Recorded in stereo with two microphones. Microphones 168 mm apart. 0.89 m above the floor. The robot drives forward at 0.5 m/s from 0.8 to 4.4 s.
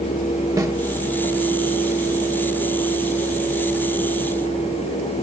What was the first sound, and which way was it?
A snare drum, 20° right (ahead or behind).